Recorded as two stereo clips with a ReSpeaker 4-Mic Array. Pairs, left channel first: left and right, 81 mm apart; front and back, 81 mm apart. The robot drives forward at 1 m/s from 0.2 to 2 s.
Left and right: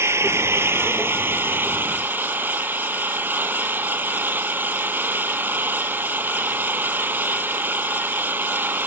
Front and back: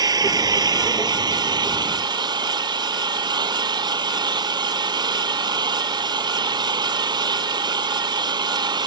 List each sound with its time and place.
0.0 s an engine running: 145° right; by 8.9 s 155° right